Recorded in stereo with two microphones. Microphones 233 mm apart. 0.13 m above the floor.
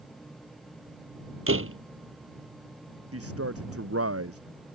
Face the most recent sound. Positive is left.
turn(degrees=-80)